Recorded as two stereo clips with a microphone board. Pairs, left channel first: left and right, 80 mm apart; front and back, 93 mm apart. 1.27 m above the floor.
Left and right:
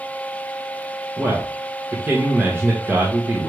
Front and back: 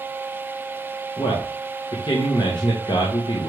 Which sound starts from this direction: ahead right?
A man speaking, at 1.2 s.